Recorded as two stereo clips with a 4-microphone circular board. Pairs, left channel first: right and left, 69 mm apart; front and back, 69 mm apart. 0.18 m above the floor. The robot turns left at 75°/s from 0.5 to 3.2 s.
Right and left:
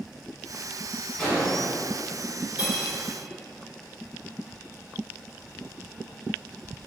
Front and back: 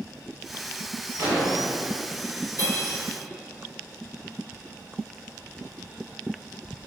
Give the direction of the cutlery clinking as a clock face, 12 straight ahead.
11 o'clock.